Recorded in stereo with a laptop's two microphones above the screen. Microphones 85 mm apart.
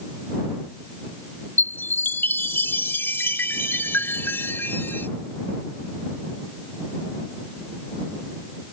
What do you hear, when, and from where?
1.6 s a chime: 25° left (ahead or behind)